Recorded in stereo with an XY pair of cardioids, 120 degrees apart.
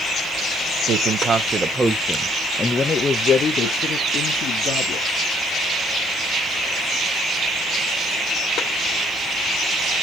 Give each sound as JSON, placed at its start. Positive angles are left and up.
{"t": 0.9, "sound": "a man speaking", "azimuth_deg": -55, "distance_m": 1.0}